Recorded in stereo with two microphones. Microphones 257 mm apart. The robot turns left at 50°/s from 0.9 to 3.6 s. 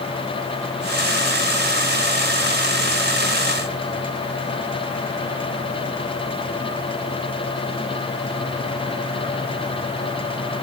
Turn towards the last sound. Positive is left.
No sound to turn to.